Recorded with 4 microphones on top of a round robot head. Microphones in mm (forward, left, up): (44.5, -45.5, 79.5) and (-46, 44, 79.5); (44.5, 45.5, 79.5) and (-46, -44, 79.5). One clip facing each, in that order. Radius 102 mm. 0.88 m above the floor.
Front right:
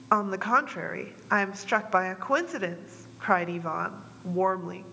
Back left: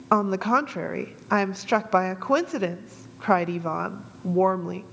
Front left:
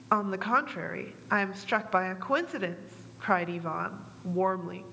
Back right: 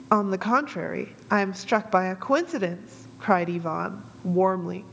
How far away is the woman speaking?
About 0.6 m.